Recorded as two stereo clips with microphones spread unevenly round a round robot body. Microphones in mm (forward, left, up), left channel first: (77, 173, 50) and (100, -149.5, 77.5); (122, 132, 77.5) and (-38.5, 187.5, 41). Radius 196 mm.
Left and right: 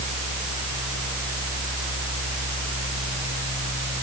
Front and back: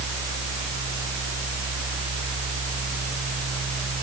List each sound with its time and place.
Only background noise.